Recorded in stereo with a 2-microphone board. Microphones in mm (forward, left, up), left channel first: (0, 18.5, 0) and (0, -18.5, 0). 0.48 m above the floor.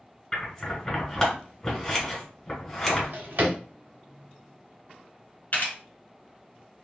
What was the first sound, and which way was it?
Scissors, 15° left (ahead or behind).